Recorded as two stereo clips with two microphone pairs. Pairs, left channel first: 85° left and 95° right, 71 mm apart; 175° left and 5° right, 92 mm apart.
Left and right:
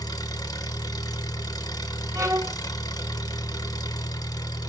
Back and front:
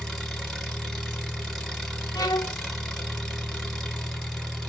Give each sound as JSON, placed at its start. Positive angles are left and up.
{"t": 0.0, "sound": "an engine running", "azimuth_deg": 90, "distance_m": 1.0}
{"t": 2.1, "sound": "a violin", "azimuth_deg": -145, "distance_m": 0.6}